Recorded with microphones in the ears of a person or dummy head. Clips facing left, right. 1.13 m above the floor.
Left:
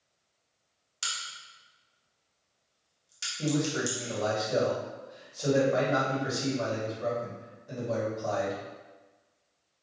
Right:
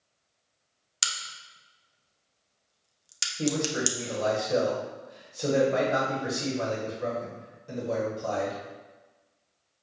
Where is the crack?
85° right, 0.7 m.